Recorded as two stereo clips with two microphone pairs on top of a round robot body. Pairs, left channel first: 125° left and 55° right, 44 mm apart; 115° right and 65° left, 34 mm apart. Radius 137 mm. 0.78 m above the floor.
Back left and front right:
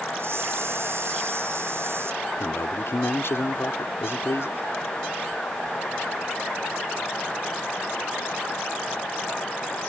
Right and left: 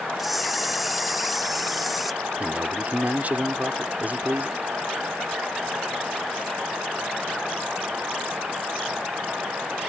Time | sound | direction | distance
0.2 | a camera shutter | 25° right | ?
2.4 | a man speaking | 100° left | ?